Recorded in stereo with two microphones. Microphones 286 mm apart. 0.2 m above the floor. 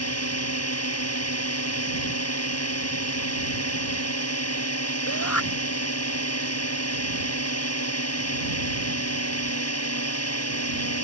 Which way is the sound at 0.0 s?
60° left (ahead or behind).